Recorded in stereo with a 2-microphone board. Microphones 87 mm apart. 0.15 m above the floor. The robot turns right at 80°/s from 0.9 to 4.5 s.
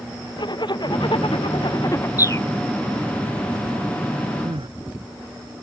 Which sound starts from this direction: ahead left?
A zipper, at 0.4 s.